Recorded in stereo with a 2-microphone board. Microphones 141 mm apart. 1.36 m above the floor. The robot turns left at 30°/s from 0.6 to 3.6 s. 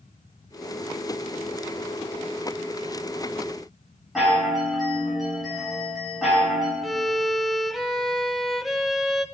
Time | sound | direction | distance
4.2 | a chime | 5° right (ahead or behind) | 8 m
6.8 | a violin | centre (ahead or behind) | 0.7 m